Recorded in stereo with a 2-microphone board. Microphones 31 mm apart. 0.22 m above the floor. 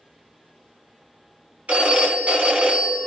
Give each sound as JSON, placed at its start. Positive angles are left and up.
{"t": 1.7, "sound": "a phone ringing", "side_deg": -55, "distance_m": 1.2}